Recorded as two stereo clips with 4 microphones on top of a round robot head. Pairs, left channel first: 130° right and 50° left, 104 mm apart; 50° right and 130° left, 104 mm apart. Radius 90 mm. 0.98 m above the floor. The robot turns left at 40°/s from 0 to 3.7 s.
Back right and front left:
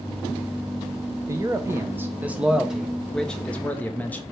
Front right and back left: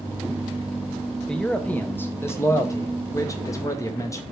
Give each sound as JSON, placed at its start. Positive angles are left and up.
{"t": 1.3, "sound": "a man speaking", "azimuth_deg": 30, "distance_m": 0.9}